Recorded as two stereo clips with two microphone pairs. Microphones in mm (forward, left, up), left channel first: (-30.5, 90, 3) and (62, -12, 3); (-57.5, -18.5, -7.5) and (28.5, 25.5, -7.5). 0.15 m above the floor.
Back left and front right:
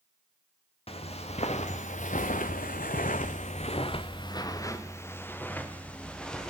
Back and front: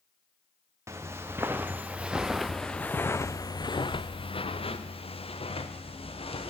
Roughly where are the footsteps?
Left.